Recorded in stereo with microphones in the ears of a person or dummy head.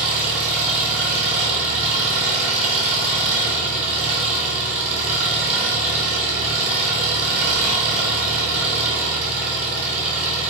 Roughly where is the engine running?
Centre.